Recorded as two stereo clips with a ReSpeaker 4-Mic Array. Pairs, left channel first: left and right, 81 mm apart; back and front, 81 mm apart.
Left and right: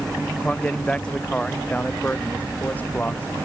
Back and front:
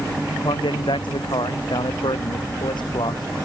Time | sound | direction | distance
0.4 | a man speaking | 170° left | ?